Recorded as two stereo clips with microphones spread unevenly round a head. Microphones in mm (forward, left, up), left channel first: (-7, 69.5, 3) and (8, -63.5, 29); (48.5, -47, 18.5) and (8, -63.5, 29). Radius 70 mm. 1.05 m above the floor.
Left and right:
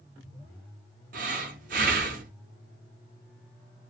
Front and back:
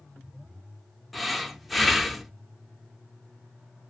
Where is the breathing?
75° right, 0.6 m.